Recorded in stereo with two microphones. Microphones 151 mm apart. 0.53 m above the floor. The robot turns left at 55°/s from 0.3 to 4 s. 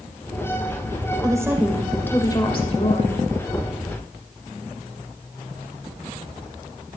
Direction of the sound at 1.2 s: 150° right.